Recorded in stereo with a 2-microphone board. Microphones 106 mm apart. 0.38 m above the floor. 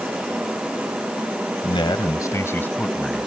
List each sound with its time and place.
1.6 s a man speaking: 55° left (ahead or behind); by 3.3 s centre (ahead or behind)